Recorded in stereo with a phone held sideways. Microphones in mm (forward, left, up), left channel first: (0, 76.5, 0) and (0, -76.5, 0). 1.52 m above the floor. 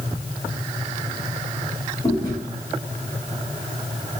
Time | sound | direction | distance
2.0 | chewing | 30° left (ahead or behind) | 1.8 m